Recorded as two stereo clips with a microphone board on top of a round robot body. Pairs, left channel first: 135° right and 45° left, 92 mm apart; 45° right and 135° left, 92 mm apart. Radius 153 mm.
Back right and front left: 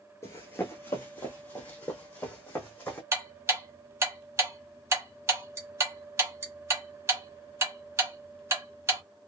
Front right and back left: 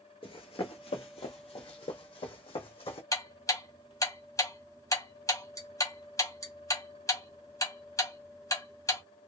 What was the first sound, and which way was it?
Running footsteps, 75° right.